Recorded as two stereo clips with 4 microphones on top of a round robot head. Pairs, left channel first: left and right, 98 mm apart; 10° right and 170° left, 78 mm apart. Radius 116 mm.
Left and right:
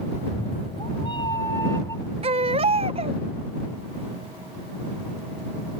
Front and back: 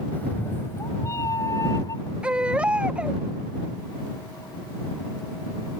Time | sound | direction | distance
0.1 | a cat meowing | 60° left | ?
2.2 | a baby crying | 110° right | ?